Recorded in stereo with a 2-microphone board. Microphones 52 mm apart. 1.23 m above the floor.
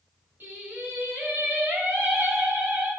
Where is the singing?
40° right (ahead or behind), 4 m.